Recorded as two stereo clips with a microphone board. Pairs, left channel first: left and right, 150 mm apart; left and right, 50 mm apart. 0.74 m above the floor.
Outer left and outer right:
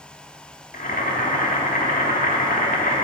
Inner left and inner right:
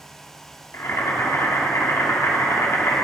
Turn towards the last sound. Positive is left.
turn(degrees=65)  # may be behind; listen again after turning